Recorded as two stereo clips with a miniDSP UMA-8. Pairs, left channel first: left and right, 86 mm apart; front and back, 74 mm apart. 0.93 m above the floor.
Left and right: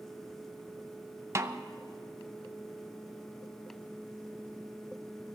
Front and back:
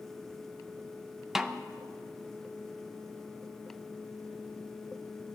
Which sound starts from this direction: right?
A snare drum, at 1.4 s.